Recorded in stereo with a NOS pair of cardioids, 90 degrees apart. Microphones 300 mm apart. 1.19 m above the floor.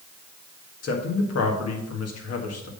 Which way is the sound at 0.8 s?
55° left.